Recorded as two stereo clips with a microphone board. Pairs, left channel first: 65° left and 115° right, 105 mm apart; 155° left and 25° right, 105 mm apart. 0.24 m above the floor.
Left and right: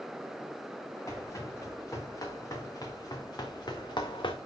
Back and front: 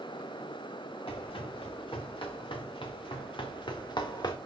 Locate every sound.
1.1 s running footsteps: 125° left, 5 m; by 4.4 s 105° left, 1.4 m